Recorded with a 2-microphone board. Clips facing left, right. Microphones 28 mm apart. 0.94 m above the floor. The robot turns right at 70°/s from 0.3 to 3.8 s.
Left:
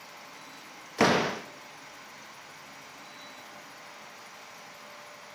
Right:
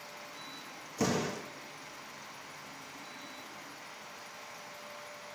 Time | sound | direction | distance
1.0 | a door slam | 115° left | 0.9 m